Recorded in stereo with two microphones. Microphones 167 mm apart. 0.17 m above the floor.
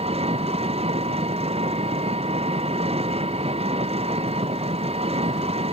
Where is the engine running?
35° right (ahead or behind).